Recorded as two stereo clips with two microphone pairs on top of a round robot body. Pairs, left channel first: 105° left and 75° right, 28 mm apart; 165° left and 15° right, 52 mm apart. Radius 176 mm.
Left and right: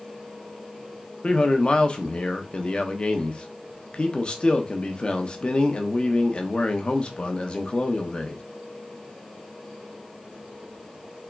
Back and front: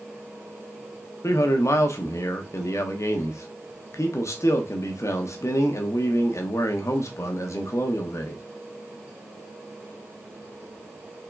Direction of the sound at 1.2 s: 160° left.